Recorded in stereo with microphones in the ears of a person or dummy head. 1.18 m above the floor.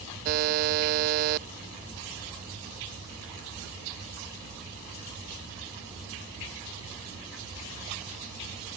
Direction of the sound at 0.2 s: 55° right (ahead or behind).